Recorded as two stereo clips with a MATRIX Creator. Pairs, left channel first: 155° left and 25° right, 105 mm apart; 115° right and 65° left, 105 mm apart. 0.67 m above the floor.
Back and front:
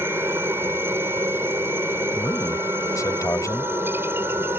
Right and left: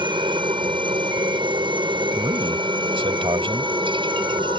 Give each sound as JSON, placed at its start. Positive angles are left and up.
{"t": 0.0, "sound": "a helicopter", "azimuth_deg": 40}
{"t": 2.1, "sound": "a man speaking", "azimuth_deg": 100}